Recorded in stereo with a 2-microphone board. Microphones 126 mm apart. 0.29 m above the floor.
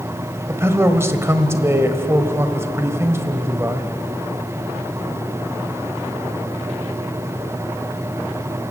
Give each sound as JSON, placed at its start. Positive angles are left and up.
{"t": 0.5, "sound": "a man speaking", "side_deg": -20, "distance_m": 1.4}